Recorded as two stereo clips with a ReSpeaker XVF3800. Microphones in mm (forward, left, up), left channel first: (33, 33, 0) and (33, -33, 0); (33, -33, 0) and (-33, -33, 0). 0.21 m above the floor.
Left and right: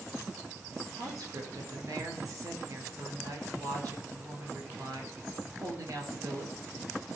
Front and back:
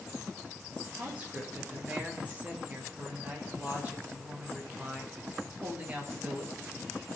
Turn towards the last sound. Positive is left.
turn(degrees=-115)